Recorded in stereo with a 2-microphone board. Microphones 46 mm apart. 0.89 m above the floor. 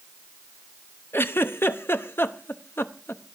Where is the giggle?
60° left (ahead or behind), 0.8 m.